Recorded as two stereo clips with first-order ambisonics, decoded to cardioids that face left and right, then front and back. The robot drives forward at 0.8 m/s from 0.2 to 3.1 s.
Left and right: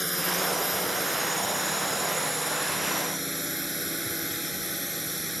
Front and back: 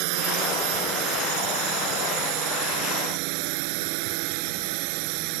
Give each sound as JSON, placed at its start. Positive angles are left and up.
{"t": 0.0, "sound": "a drone", "azimuth_deg": 180}